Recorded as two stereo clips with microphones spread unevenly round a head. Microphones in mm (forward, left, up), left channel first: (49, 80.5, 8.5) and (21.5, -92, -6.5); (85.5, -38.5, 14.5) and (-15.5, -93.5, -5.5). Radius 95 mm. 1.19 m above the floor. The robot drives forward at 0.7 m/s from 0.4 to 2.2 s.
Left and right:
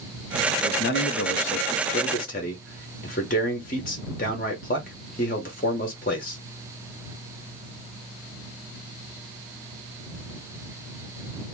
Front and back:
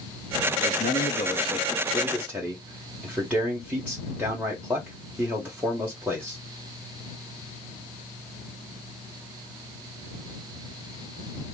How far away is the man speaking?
About 0.9 m.